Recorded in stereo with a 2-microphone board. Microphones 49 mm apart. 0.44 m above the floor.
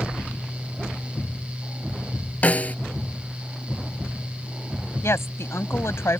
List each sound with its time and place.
2.4 s a snare drum: 30° left (ahead or behind)
5.0 s a woman speaking: 65° left (ahead or behind)